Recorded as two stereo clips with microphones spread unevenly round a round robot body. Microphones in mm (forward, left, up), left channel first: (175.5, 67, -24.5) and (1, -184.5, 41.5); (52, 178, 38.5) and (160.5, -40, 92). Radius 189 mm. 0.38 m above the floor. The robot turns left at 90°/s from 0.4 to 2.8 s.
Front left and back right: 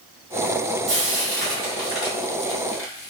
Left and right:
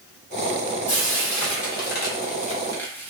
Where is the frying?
140° right, 1.2 m; by 3.1 s 45° left, 1.2 m.